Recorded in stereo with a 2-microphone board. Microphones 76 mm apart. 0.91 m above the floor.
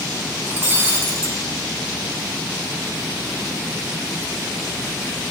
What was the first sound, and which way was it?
Breaking glass, 25° right (ahead or behind).